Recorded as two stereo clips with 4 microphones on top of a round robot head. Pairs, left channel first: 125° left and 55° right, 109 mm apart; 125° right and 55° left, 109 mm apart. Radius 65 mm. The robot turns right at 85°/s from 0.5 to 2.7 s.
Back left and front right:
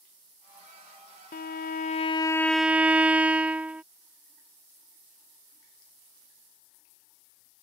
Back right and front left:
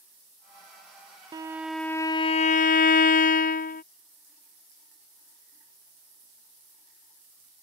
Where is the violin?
110° left; by 3.8 s 135° right.